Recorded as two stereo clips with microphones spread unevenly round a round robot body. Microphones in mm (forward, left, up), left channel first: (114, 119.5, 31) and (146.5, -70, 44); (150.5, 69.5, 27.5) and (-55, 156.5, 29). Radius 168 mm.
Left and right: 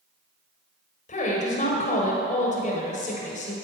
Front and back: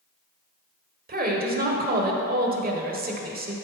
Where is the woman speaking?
130° left, 1.5 m.